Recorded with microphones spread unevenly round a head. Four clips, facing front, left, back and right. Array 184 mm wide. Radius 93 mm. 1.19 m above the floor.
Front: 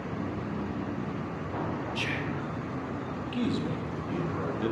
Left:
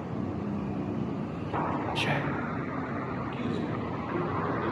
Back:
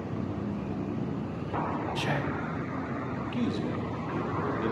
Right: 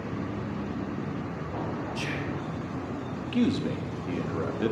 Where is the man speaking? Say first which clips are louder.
Right 9 dB, front 1 dB; 80° right, 2 m.